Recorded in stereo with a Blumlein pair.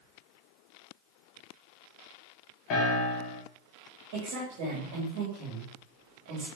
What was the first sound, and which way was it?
A piano, 35° left.